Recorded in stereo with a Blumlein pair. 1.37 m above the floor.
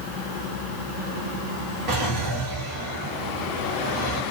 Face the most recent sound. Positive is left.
turn(degrees=-35)